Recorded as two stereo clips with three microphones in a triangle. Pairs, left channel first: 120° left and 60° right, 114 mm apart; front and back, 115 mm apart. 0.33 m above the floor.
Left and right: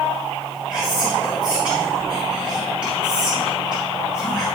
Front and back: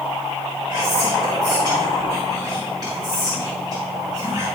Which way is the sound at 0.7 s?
140° right.